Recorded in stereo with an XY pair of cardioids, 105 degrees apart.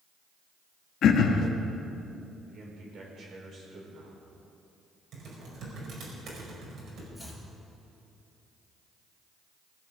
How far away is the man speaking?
About 4.5 m.